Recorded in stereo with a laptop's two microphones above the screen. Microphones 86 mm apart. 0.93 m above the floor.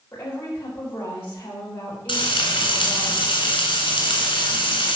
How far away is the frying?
About 2.5 m.